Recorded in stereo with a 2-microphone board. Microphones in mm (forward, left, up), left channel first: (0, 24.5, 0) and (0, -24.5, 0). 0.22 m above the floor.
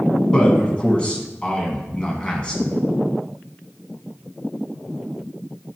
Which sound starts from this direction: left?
A man speaking, at 0.3 s.